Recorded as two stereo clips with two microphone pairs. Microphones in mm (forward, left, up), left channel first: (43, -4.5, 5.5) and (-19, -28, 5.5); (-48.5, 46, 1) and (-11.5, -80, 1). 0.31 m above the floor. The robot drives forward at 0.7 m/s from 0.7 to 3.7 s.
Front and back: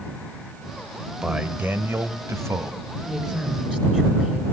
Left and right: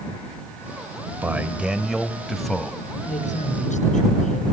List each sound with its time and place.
1.2 s a man speaking: 115° right, 0.9 m; by 2.8 s 170° right, 1.5 m
3.0 s a woman speaking: 120° left, 4.5 m; by 4.4 s 125° left, 4.5 m